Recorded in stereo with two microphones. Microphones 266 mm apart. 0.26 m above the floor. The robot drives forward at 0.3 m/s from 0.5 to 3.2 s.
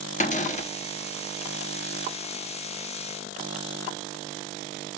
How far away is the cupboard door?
About 0.6 m.